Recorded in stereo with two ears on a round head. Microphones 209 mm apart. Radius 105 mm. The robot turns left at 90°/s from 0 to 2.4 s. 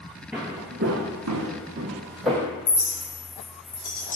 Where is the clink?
55° left (ahead or behind), 1.4 m.